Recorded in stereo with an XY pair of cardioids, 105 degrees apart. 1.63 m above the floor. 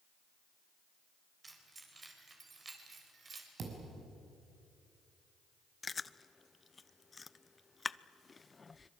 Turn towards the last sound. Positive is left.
turn(degrees=25)